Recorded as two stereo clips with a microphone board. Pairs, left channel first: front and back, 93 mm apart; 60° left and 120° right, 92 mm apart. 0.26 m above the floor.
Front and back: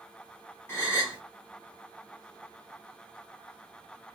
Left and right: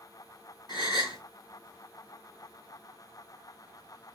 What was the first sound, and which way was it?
A gasp, 55° left.